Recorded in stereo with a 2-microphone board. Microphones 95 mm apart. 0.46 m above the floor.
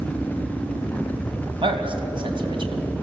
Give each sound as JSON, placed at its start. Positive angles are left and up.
{"t": 1.6, "sound": "a man speaking", "side_deg": -65, "distance_m": 2.5}